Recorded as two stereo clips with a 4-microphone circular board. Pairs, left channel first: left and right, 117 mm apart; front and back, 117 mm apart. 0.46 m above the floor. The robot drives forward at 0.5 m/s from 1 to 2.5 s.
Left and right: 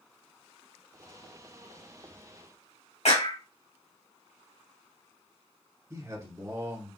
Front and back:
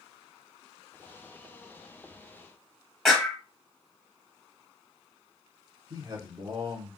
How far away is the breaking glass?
I don't hear breaking glass.